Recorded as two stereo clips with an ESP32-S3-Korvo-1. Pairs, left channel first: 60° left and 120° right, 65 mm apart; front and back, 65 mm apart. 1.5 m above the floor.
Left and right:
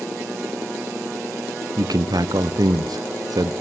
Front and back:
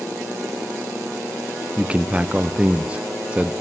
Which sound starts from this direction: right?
A man speaking, at 1.8 s.